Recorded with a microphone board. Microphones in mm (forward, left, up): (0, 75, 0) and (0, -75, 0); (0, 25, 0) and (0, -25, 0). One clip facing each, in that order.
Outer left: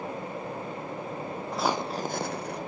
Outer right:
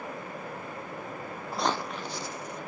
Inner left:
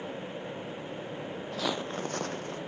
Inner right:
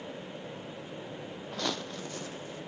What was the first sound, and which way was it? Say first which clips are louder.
Footsteps: outer left 1 dB, inner left 2 dB; 5° right (ahead or behind).